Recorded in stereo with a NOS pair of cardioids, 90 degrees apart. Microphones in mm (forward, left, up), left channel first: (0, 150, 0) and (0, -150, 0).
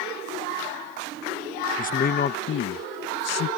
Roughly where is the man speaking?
Ahead left.